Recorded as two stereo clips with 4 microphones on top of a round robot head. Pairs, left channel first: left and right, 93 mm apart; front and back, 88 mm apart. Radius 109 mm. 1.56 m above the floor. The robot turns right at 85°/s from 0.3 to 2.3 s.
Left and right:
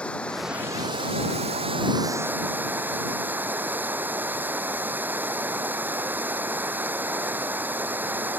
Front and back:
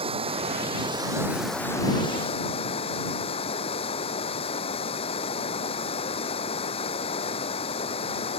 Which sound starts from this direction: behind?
Running water, at 0.0 s.